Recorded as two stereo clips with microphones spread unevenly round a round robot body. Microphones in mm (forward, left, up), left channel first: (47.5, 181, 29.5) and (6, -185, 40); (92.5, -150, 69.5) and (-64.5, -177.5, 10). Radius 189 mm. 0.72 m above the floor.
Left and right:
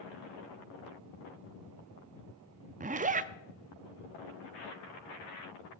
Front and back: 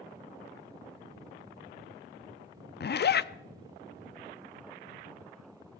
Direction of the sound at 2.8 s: 25° right.